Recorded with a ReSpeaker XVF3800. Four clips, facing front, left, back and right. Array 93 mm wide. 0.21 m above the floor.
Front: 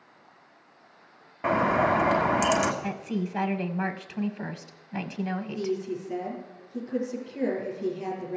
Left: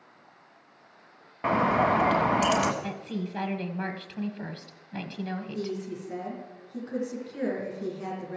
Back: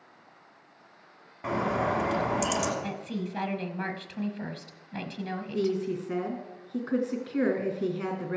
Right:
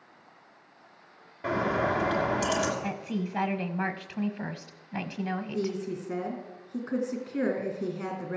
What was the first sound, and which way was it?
A bird, 55° left.